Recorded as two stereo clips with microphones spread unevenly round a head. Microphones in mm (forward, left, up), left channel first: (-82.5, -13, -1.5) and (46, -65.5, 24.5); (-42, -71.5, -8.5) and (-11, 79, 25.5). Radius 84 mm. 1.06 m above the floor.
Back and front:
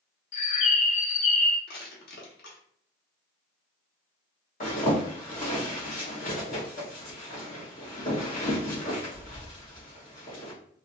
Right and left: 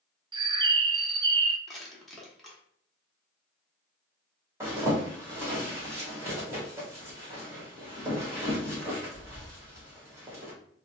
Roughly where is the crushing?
Behind.